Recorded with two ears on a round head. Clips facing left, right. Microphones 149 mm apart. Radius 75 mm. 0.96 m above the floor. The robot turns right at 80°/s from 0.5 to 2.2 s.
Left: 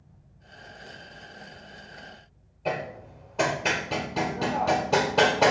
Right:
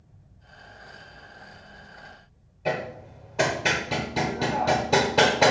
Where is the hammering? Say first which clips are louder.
Right 2 dB; 5° right (ahead or behind), 1.0 m.